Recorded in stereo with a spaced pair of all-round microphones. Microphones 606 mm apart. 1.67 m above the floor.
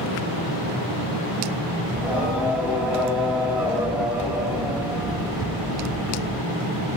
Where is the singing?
Centre (ahead or behind), 1.1 m.